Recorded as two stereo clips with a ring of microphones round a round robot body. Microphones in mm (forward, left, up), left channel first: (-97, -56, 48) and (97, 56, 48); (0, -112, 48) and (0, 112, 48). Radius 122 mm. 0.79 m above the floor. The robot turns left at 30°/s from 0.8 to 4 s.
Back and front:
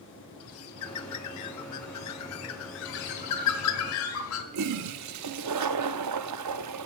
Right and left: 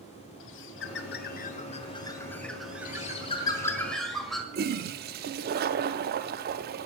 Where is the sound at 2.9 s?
145° right, 1.3 m; by 4.4 s straight behind, 1.3 m.